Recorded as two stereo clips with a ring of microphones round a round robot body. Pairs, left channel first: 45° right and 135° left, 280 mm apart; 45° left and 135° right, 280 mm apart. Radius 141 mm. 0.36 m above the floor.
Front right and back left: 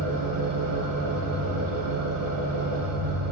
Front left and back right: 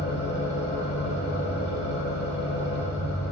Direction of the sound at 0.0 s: 95° left.